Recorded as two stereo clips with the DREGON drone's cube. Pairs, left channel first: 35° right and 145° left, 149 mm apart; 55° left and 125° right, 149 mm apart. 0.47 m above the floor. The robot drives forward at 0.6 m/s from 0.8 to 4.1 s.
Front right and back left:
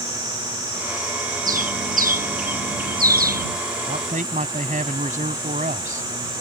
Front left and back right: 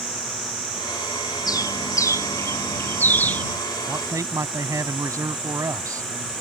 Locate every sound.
1.5 s a bird: 120° left; by 3.5 s 135° left
3.9 s a man speaking: 170° left